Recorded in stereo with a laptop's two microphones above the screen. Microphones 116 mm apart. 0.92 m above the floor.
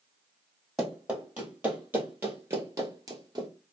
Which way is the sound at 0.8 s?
10° right (ahead or behind).